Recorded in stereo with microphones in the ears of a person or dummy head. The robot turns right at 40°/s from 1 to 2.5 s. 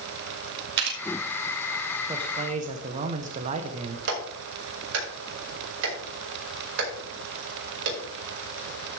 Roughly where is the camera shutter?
Right.